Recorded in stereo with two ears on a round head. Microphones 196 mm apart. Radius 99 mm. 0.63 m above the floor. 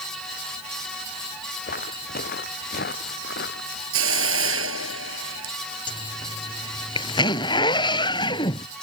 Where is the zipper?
20° left (ahead or behind).